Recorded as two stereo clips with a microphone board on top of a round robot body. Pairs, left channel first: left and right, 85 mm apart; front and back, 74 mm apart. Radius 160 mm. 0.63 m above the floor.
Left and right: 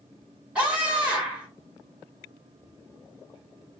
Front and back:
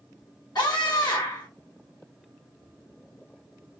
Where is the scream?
15° right, 1.4 m.